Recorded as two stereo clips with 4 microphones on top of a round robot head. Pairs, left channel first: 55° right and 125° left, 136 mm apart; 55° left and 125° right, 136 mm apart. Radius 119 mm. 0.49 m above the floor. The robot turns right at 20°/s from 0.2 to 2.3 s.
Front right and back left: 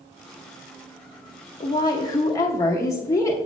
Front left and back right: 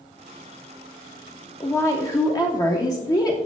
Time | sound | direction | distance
1.6 | a woman speaking | 10° right | 0.8 m